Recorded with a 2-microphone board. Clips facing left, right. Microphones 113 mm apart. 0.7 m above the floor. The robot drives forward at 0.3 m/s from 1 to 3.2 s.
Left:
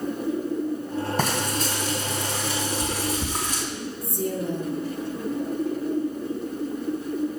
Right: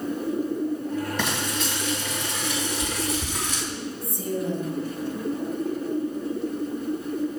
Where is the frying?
45° left (ahead or behind), 2 m; by 3.6 s 35° left (ahead or behind), 2.5 m.